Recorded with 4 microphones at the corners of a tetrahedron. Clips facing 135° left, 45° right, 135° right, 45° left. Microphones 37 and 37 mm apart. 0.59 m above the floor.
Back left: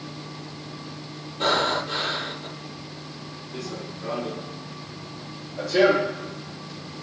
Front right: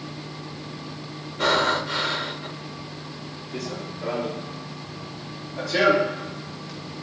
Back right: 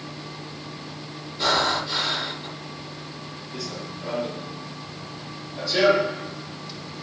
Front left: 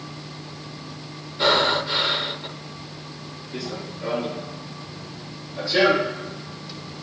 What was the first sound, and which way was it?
Breathing, 25° right.